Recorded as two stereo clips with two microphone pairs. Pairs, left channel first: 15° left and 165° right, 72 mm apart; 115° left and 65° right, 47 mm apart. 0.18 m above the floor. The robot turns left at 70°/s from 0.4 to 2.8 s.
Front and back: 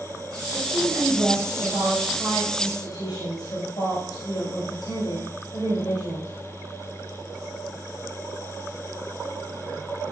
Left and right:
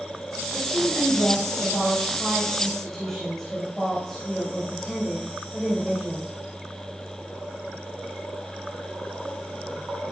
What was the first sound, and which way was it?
A woman speaking, 170° right.